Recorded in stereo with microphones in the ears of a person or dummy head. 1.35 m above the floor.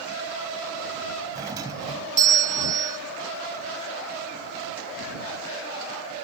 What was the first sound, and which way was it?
A doorbell, 20° right (ahead or behind).